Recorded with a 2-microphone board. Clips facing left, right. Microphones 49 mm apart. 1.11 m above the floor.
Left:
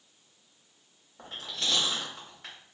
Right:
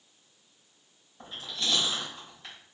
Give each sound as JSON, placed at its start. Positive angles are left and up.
{"t": 1.2, "sound": "chewing", "side_deg": 85, "distance_m": 2.0}